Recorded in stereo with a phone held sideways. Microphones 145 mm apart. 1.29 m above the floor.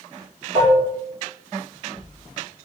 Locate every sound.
0.6 s dishes clattering: 30° right (ahead or behind), 1.4 m